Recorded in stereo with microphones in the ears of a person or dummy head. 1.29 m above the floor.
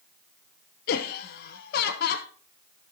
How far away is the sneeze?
I don't hear a sneeze.